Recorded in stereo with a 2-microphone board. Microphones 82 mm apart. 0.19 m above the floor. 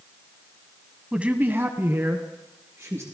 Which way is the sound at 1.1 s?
10° right (ahead or behind).